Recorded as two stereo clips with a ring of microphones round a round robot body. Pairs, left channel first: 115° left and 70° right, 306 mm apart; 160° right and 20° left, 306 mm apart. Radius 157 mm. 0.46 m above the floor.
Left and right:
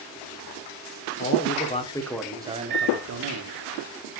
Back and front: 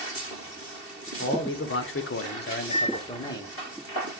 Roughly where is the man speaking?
Behind.